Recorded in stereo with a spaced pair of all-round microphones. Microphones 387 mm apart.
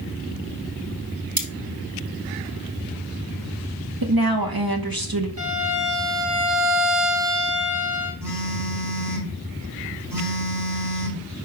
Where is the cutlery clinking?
65° right (ahead or behind), 1.4 m.